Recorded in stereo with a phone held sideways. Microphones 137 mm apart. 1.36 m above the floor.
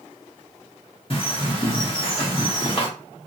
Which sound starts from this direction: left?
A bird, at 1.1 s.